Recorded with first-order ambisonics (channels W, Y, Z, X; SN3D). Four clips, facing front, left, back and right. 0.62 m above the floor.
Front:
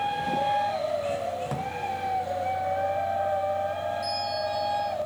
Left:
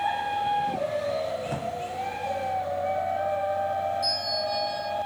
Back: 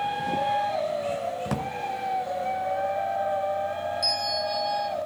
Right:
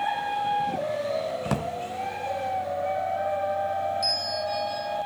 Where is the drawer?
110° right, 1.0 m.